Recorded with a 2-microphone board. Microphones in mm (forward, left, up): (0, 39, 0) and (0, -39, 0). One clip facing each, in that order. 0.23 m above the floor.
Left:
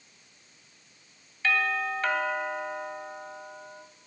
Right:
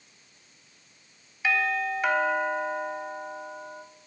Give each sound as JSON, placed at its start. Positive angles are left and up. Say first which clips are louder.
{"t": 1.4, "sound": "a doorbell", "louder": "right 1 dB", "side_deg": -15, "distance_m": 2.0}